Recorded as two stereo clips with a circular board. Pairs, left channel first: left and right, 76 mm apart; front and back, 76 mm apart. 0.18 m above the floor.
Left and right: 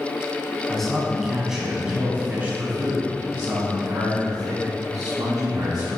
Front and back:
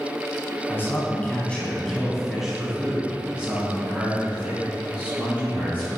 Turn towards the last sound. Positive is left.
turn(degrees=-135)